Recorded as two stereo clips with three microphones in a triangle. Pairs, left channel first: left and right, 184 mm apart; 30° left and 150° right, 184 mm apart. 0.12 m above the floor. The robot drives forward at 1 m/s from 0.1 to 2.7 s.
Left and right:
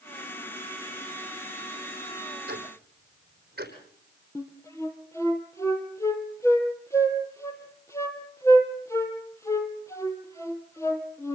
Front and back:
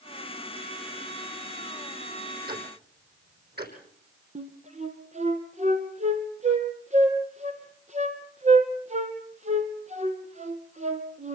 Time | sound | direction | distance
2.5 | ticking | 120° right | 4 m
4.3 | a flute | 165° left | 2.5 m